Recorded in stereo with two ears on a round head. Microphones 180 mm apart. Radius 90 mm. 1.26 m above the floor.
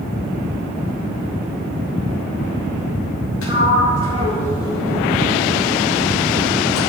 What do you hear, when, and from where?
3.4 s a sliding door: 75° left (ahead or behind), 2 m